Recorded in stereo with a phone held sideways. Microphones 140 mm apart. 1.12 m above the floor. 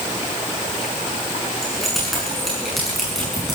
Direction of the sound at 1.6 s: Centre (ahead or behind).